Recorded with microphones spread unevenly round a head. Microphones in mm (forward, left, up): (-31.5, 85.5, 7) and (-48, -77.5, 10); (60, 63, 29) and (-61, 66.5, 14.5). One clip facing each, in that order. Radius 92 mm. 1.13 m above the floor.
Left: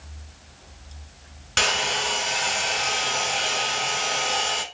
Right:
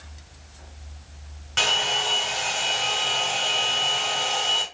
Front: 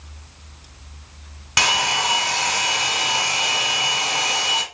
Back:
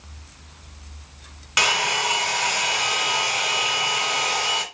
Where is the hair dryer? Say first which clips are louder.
Left 1 dB, front 2 dB; 40° left, 1.9 m.